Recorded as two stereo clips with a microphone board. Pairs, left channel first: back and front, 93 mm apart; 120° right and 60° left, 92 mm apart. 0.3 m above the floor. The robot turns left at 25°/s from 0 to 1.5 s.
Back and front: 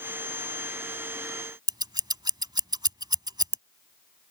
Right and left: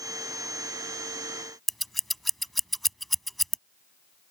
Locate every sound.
1.7 s scissors: 30° right